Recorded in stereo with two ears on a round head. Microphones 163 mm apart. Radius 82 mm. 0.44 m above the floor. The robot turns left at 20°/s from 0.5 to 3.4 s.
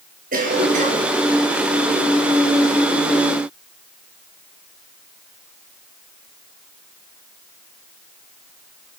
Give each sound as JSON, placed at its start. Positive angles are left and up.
{"t": 0.3, "sound": "a cough", "side_deg": -50, "distance_m": 9.5}